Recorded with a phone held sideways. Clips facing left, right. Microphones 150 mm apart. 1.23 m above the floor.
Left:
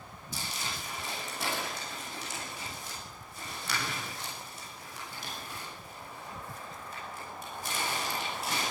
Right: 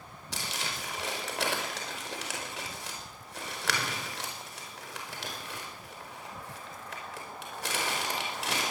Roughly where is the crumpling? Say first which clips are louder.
Right 2 dB; right.